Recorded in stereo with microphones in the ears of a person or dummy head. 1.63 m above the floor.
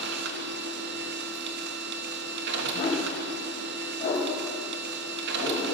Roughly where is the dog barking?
Left.